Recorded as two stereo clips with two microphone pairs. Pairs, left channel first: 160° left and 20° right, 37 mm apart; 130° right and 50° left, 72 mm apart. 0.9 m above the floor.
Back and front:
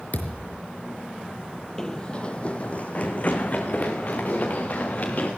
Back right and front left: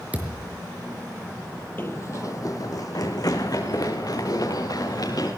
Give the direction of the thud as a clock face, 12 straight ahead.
8 o'clock.